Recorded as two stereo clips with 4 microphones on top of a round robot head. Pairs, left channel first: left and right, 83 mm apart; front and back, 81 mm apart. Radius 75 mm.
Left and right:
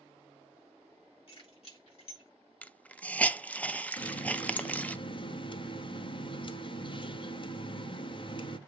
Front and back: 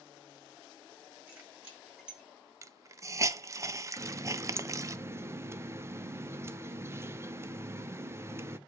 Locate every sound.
1.3 s keys jangling: 110° left, 6.5 m; by 2.3 s 100° left, 6 m
2.6 s a hiss: 155° left, 0.6 m
4.0 s a running tap: 115° left, 0.7 m